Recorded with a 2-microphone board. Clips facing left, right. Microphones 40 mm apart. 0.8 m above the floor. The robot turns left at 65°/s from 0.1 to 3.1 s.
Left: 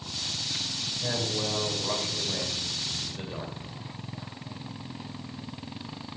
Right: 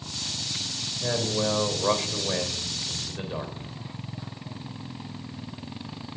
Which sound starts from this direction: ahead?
A man speaking, at 1.0 s.